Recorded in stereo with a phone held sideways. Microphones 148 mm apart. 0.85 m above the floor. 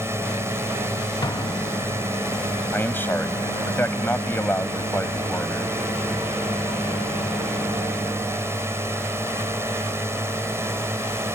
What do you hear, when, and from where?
0.0 s a drone: 15° right (ahead or behind)
1.2 s an explosion: 30° left (ahead or behind)
2.7 s a man speaking: 15° left (ahead or behind)